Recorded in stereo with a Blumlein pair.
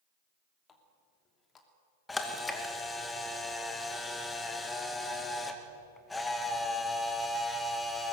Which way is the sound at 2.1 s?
10° left.